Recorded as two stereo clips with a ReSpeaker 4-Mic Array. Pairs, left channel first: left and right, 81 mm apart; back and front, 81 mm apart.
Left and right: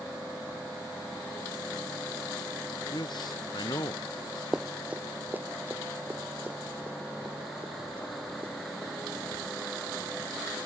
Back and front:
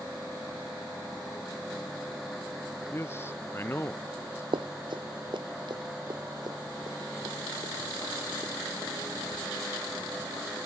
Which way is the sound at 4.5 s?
5° right.